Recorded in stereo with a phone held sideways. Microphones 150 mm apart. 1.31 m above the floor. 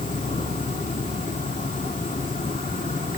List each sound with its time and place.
0.0 s an insect: 60° left (ahead or behind), 1.5 m